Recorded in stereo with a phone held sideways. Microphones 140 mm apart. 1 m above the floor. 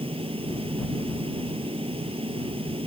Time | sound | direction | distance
0.0 | a fan | 40° right (ahead or behind) | ?